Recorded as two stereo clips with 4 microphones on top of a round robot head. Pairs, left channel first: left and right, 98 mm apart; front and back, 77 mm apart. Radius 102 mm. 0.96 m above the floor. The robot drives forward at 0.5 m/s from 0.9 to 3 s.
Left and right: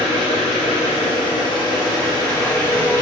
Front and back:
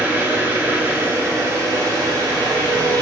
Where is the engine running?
115° left, 0.8 m; by 3.0 s 155° left, 1.6 m.